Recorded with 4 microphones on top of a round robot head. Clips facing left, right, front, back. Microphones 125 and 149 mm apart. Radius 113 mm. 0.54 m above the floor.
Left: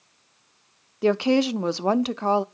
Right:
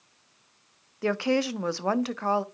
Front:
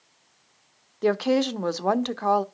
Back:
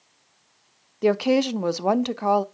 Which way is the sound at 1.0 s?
120° left.